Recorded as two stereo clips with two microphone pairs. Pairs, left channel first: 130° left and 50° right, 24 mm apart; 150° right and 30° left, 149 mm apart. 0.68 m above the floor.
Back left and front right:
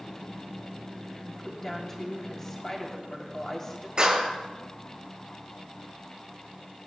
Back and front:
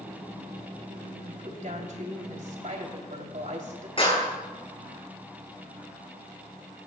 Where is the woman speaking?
60° left, 3 m.